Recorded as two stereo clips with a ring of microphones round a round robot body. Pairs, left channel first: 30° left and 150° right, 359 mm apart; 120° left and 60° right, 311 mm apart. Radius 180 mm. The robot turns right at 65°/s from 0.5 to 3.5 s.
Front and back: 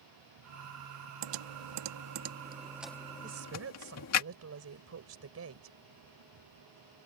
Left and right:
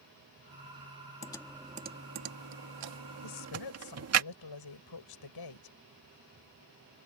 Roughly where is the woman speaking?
Behind left.